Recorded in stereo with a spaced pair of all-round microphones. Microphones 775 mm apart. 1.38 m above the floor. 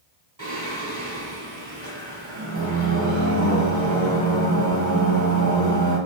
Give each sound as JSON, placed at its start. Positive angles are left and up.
{"t": 0.4, "sound": "singing", "side_deg": -25, "distance_m": 1.4}